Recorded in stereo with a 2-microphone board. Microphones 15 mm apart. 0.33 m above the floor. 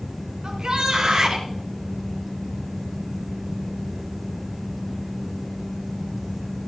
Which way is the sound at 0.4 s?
60° right (ahead or behind).